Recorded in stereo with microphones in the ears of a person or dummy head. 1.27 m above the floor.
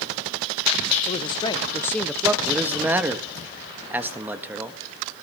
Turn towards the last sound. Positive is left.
turn(degrees=-5)  # may be behind; listen again after turning